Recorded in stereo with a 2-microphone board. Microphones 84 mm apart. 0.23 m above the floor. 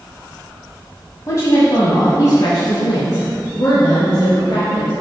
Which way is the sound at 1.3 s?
40° left (ahead or behind).